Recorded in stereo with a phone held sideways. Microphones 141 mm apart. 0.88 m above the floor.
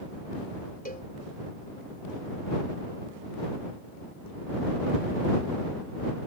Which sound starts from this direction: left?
A cowbell, at 0.8 s.